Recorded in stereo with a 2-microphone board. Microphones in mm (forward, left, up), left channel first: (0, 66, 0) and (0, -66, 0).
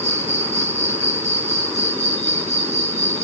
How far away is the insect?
About 1.1 m.